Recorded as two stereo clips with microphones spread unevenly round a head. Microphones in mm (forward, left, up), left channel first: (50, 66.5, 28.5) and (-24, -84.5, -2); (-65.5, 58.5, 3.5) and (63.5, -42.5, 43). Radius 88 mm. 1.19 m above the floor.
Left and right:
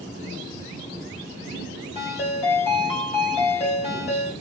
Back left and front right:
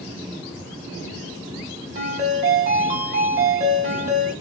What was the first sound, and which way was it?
A ringtone, 10° left.